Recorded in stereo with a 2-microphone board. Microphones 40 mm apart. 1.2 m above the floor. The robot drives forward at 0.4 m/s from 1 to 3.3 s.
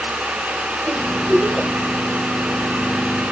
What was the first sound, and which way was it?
A giggle, 20° left (ahead or behind).